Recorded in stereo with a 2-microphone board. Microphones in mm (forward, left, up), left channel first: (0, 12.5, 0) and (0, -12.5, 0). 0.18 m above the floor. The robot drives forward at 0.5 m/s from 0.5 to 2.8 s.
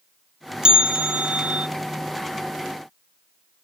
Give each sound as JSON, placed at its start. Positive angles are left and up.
{"t": 0.6, "sound": "a bell", "side_deg": -35, "distance_m": 0.8}